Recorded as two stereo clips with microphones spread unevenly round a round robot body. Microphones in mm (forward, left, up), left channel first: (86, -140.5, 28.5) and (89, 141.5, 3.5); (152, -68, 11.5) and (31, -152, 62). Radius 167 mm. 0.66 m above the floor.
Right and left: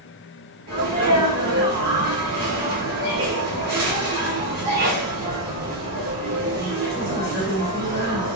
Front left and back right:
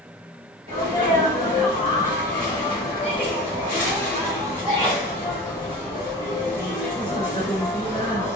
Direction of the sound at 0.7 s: 145° left.